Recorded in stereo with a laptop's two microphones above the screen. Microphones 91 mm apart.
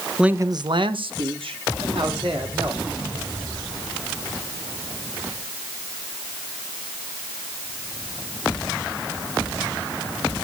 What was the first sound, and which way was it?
A man speaking, 5° right (ahead or behind).